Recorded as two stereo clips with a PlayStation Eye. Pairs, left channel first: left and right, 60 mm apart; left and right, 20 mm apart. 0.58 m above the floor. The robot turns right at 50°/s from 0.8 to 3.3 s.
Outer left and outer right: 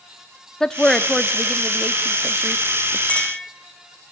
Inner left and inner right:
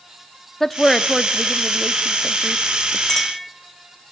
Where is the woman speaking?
10° left (ahead or behind), 0.7 m; by 3.0 s 20° right (ahead or behind), 0.7 m.